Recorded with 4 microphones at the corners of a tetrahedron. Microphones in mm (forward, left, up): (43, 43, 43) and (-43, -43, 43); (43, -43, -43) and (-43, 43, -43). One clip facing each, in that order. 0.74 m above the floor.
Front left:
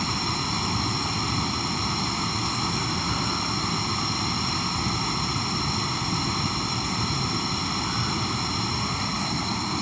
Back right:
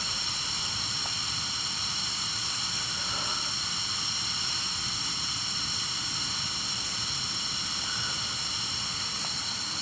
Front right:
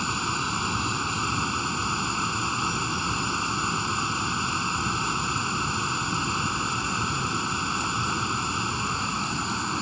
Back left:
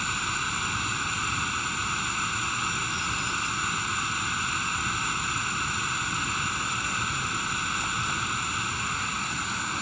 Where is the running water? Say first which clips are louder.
Front left 12 dB, front right 3 dB; 15° left.